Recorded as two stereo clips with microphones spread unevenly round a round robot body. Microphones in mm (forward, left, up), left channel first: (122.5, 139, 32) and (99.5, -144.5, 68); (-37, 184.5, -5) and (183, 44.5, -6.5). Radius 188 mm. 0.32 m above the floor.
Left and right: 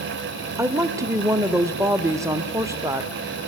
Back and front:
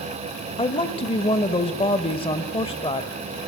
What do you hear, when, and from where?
0.6 s a woman speaking: 175° right, 1.1 m